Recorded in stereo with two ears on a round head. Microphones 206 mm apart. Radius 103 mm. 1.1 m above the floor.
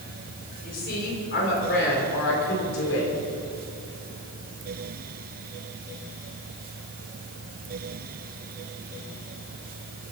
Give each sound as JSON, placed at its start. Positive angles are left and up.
{"t": 0.6, "sound": "a woman speaking", "side_deg": 40, "distance_m": 4.0}